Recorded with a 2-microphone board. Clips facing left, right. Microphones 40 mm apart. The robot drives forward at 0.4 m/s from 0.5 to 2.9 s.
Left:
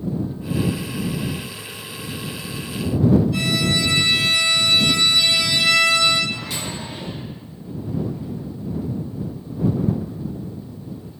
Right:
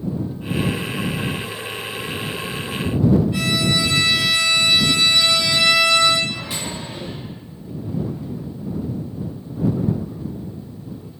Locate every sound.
3.3 s a violin: 30° right (ahead or behind), 1.1 m
6.3 s a microwave: 20° right (ahead or behind), 1.0 m